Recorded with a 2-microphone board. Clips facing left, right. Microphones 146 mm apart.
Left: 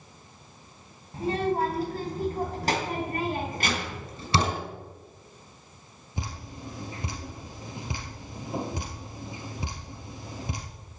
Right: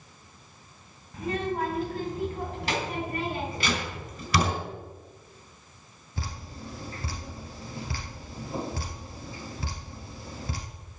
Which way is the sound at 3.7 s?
25° left (ahead or behind).